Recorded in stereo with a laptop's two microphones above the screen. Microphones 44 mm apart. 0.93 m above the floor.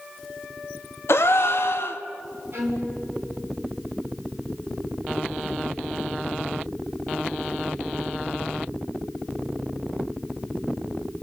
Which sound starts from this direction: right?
A violin, at 2.5 s.